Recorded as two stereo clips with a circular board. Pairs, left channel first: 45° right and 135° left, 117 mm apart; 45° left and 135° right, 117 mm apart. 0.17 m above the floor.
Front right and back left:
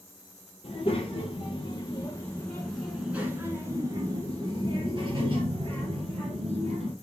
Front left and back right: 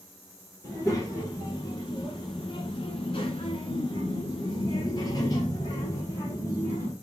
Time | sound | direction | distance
0.6 | a child speaking | 30° right | 1.6 m